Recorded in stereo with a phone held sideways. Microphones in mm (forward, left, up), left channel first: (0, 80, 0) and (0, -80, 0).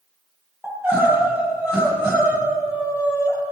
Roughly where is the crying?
Centre.